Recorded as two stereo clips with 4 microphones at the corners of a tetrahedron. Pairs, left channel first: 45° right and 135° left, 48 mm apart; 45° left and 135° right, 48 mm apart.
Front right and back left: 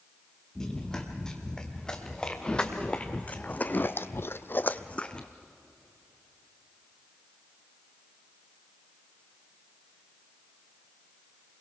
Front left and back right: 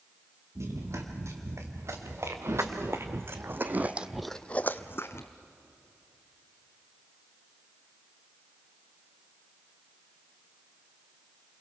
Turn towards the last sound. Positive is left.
turn(degrees=25)